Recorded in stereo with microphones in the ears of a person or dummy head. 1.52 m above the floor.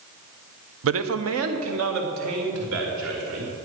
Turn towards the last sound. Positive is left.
turn(degrees=-75)  # may be behind; listen again after turning